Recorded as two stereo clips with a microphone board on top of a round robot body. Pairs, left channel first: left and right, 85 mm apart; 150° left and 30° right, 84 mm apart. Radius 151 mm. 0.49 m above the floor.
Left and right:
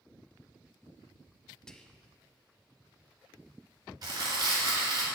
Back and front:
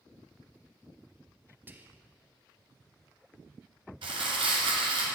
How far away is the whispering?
About 0.7 m.